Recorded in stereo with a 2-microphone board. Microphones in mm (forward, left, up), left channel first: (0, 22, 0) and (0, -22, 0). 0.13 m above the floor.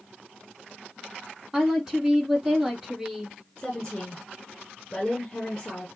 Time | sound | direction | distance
1.5 | a woman speaking | 10° right (ahead or behind) | 4 m
3.6 | a woman speaking | 15° left (ahead or behind) | 1.5 m